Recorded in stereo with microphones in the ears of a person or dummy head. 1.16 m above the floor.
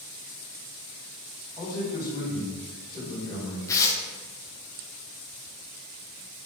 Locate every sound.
1.6 s a man speaking: 20° left (ahead or behind), 3 m
3.7 s tearing paper: 15° left (ahead or behind), 0.8 m